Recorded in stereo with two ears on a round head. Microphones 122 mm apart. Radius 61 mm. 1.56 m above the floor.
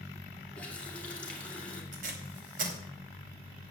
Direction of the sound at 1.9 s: 70° right (ahead or behind).